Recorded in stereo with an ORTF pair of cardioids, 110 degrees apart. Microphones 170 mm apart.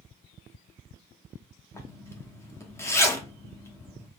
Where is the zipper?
15° left, 0.7 m.